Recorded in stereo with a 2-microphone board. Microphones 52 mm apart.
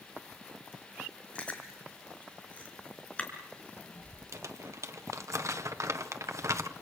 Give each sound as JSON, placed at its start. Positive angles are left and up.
{"t": 1.4, "sound": "chewing", "side_deg": 25, "distance_m": 5.0}
{"t": 4.3, "sound": "crumpling", "side_deg": -75, "distance_m": 1.4}